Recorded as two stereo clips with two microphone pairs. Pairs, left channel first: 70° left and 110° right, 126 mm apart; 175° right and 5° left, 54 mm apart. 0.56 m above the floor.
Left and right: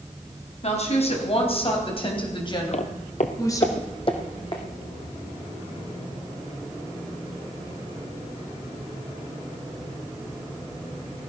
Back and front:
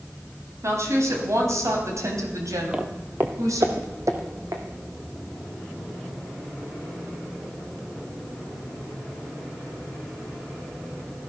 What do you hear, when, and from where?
0.6 s a woman speaking: 35° left, 4 m; by 3.7 s 5° left, 3 m
2.7 s footsteps: 80° left, 1.1 m; by 4.6 s 15° left, 2.5 m